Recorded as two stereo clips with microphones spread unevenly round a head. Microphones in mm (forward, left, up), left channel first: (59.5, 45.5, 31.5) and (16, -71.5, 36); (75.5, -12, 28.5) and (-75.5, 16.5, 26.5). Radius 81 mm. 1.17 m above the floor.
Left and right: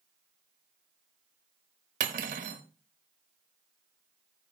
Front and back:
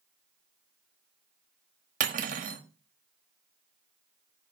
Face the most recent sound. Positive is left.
turn(degrees=-150)